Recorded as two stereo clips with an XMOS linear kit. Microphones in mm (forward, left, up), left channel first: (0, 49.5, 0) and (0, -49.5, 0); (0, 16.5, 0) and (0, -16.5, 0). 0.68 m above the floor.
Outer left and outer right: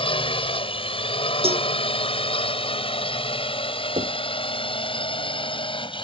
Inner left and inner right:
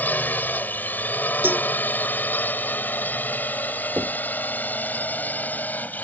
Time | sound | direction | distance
0.0 | a drone | 65° left (ahead or behind) | ?
1.4 | a cowbell | 80° right | ?
4.0 | knocking | 65° right (ahead or behind) | ?